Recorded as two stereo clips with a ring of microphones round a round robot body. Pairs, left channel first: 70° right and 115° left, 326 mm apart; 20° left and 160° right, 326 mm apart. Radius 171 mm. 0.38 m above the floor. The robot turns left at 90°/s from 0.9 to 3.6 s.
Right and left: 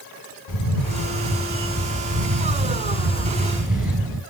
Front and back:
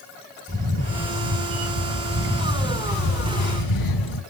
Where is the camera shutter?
95° right, 4 m; by 4.2 s 25° left, 4 m.